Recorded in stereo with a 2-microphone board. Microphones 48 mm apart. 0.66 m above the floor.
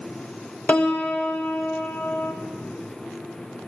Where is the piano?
30° left (ahead or behind), 0.6 m.